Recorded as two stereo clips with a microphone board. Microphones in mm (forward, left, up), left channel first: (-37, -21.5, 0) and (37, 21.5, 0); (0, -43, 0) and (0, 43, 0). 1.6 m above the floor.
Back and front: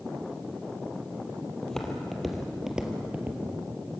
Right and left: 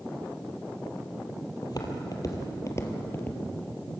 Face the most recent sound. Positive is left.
turn(degrees=-30)